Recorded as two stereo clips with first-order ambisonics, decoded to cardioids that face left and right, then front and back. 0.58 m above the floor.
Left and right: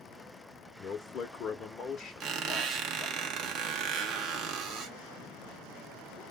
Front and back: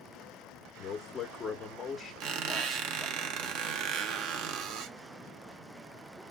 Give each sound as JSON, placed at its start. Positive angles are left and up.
{"t": 0.8, "sound": "a man speaking", "azimuth_deg": 60, "distance_m": 0.7}
{"t": 2.2, "sound": "a squeak", "azimuth_deg": -145, "distance_m": 0.6}